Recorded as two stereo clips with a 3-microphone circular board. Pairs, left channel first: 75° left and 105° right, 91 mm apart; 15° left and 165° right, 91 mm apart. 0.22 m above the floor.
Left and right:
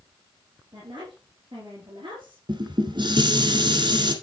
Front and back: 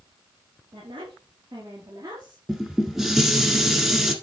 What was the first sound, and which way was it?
A woman speaking, 145° right.